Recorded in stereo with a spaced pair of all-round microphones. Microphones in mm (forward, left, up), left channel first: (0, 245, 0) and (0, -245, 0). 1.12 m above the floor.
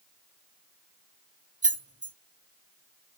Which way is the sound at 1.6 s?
15° right (ahead or behind).